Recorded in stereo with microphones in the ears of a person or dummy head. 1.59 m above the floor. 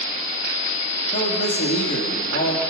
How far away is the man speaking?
About 3 m.